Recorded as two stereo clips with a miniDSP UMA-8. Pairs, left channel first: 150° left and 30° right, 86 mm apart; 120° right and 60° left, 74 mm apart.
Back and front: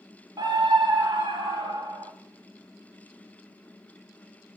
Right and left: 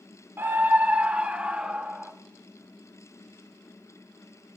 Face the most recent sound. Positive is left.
turn(degrees=-20)